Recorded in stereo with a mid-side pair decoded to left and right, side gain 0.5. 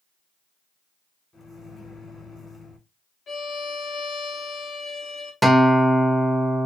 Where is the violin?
50° left, 1.0 m.